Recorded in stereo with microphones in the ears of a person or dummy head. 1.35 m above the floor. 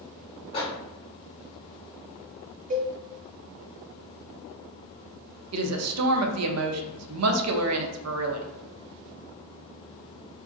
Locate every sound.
0.5 s a microwave: 35° left (ahead or behind), 1.4 m
2.7 s a cowbell: 40° right (ahead or behind), 0.5 m
5.5 s a woman speaking: 85° right, 0.6 m